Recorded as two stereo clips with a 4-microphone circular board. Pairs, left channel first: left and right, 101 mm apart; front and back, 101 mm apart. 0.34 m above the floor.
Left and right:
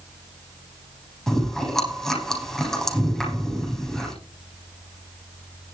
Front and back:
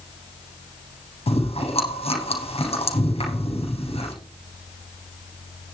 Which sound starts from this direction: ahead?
Chewing, at 1.3 s.